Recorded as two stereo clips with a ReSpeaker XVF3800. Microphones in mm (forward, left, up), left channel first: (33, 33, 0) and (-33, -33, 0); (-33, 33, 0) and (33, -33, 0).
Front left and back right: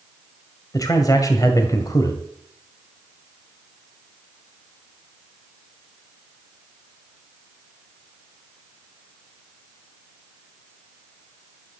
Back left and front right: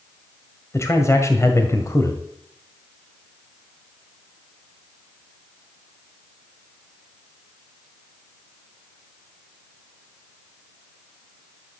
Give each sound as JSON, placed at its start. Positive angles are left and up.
{"t": 0.7, "sound": "a man speaking", "azimuth_deg": 85, "distance_m": 1.7}